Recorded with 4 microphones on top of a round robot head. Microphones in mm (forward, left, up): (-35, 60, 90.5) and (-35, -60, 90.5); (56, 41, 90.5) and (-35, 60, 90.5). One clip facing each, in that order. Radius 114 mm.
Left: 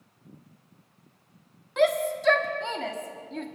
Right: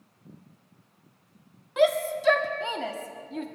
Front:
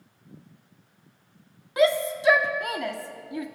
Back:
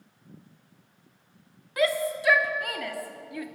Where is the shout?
15° right, 1.4 m.